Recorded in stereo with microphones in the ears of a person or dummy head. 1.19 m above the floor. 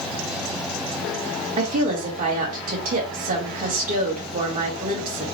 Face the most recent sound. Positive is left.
turn(degrees=-40)  # may be behind; listen again after turning